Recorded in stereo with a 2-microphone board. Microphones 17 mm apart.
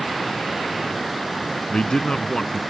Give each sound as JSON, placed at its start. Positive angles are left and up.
{"t": 1.7, "sound": "a man speaking", "side_deg": 60}